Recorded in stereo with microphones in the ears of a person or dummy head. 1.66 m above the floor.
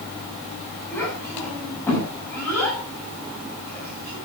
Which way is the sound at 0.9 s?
15° left (ahead or behind).